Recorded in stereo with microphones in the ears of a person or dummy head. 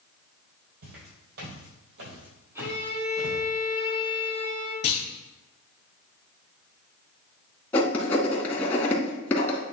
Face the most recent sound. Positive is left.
turn(degrees=10)  # may be behind; listen again after turning